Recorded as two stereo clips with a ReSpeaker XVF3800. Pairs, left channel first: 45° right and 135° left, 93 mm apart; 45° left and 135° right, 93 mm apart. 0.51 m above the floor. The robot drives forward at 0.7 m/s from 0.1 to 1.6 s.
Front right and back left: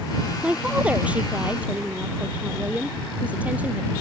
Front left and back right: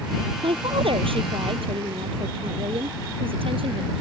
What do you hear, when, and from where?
0.4 s a woman speaking: 145° right; by 3.9 s 150° right